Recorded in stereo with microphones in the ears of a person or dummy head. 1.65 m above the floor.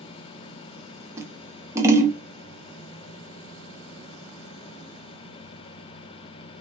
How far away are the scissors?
About 0.5 m.